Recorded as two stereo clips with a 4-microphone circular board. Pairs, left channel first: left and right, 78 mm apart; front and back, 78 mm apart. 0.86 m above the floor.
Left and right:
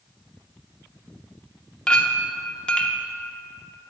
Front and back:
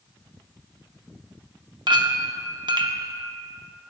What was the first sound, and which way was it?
A clink, 165° left.